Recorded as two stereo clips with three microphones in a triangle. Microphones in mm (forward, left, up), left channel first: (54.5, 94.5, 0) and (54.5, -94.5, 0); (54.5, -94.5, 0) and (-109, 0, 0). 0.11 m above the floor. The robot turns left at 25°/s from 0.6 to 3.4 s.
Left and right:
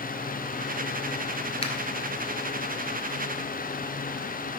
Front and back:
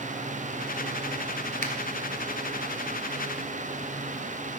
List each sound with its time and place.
1.6 s a finger snap: 130° left, 1.2 m